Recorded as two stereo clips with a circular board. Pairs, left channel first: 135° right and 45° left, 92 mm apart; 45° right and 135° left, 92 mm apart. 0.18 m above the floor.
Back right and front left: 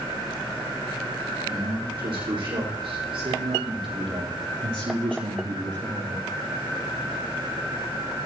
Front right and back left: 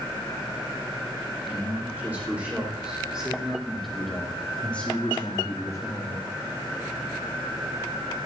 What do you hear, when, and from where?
1.5 s a man speaking: 65° left, 8 m; by 6.3 s 5° right, 4 m